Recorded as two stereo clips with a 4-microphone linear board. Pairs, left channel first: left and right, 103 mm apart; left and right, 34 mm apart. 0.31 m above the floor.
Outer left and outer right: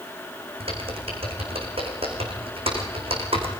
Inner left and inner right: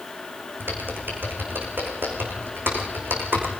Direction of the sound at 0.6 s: 60° right (ahead or behind).